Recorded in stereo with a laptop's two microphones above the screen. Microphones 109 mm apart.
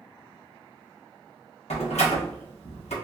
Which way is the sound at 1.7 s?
85° left.